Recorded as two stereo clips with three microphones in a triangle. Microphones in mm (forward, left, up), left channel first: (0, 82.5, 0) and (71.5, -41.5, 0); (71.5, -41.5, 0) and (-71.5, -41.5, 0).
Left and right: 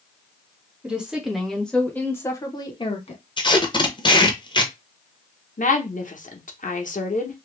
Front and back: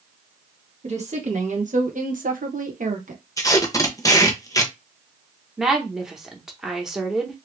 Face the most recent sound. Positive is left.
turn(degrees=95)